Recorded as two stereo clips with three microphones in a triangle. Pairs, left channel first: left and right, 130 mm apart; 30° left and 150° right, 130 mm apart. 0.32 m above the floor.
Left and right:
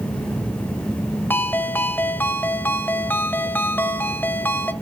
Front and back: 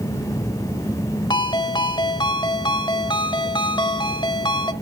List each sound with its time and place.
1.3 s a ringtone: 25° left, 0.7 m